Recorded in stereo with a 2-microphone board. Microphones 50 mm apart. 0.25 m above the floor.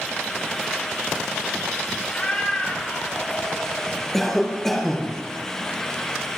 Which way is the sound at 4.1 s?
5° left (ahead or behind).